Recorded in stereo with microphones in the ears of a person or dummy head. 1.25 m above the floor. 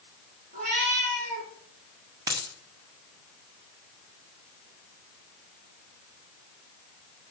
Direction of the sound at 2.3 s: 20° right (ahead or behind).